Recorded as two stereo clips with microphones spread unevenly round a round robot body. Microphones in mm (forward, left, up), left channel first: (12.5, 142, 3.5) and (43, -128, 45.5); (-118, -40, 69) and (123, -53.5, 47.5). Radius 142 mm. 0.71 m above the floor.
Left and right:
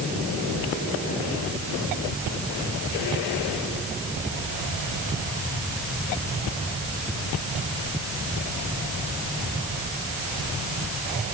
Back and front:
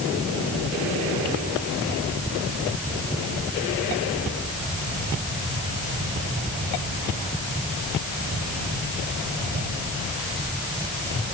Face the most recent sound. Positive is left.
No sound to turn to.